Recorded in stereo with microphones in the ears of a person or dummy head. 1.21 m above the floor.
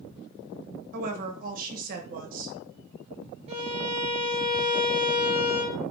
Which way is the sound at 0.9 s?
45° right (ahead or behind).